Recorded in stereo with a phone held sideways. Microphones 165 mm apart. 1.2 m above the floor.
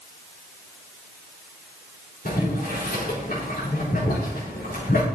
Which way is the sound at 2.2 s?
60° left (ahead or behind).